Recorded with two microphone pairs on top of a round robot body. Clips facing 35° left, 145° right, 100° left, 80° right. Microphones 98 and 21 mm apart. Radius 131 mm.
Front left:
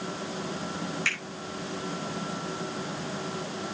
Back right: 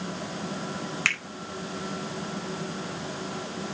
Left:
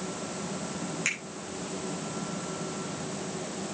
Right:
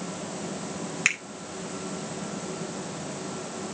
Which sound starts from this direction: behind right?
A finger snap, at 1.1 s.